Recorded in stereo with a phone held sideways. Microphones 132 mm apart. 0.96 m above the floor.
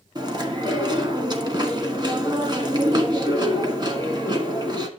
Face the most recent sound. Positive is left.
turn(degrees=-30)  # may be behind; listen again after turning